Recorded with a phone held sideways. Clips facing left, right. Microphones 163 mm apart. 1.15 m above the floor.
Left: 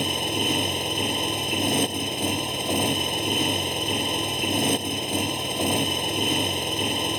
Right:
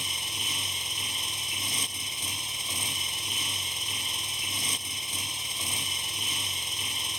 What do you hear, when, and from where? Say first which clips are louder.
0.0 s a motorcycle: left 17 dB; 65° left (ahead or behind)